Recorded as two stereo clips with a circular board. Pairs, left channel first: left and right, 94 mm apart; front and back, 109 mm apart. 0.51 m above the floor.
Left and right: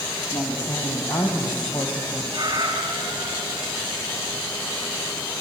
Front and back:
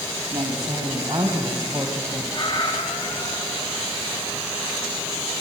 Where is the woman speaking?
140° left, 3.5 m; by 2.2 s 105° left, 3 m.